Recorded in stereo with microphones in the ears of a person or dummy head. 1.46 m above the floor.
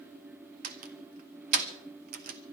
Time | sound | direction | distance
0.6 | a door slam | 50° right (ahead or behind) | 1.1 m